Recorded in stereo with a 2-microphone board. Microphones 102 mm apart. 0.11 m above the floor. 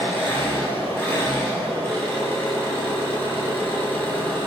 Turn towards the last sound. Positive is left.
turn(degrees=20)  # may be behind; listen again after turning